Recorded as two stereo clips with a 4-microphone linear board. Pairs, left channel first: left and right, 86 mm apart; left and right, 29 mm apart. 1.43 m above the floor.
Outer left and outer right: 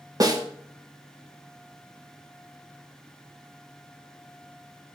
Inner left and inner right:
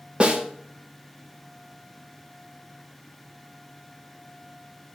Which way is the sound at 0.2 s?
45° right (ahead or behind).